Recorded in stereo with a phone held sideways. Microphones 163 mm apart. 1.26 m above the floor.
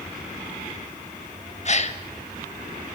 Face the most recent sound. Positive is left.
turn(degrees=45)  # may be behind; listen again after turning